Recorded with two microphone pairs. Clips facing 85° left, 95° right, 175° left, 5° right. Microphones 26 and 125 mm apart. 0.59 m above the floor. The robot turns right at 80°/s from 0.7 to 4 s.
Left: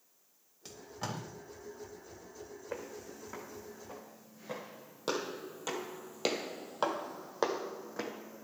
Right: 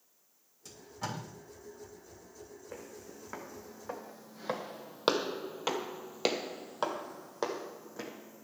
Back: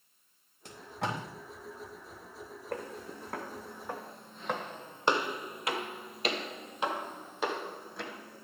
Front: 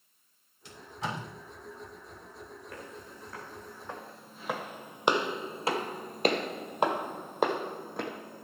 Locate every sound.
0.7 s tape being pulled: 140° left, 3 m; by 1.2 s straight behind, 3 m
2.7 s footsteps: 150° left, 2 m; by 8.4 s 30° left, 1.7 m